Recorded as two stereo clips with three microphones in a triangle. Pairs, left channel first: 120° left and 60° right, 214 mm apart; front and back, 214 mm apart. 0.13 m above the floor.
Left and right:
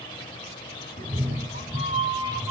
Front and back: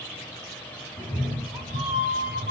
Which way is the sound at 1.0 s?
115° right.